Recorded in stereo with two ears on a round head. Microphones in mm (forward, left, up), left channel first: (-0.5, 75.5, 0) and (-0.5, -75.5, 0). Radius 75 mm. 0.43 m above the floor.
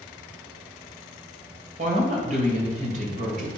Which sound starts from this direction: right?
A woman speaking, at 1.8 s.